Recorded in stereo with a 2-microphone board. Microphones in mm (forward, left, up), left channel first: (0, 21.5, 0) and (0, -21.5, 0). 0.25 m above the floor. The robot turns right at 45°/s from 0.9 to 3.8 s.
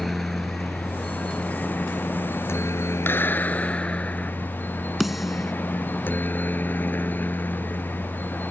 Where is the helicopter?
Straight ahead; by 8.5 s 135° left.